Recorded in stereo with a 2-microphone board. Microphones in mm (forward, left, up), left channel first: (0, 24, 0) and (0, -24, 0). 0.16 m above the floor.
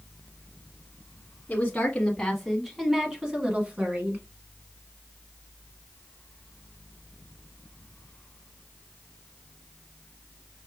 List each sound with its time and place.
1.5 s a woman speaking: 25° left (ahead or behind), 1.2 m; by 4.2 s 35° right (ahead or behind), 1.5 m